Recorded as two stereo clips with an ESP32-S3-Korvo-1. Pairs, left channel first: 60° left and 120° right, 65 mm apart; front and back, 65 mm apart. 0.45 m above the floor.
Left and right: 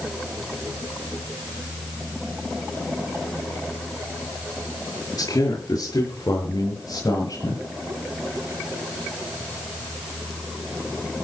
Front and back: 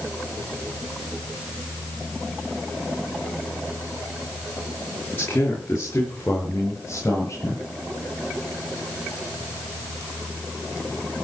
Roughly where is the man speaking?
Ahead left.